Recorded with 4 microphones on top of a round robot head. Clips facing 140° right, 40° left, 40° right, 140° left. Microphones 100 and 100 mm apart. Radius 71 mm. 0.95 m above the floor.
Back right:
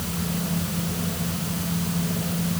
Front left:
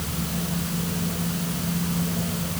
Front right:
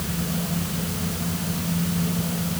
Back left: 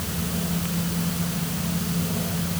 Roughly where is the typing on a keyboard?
I don't hear typing on a keyboard.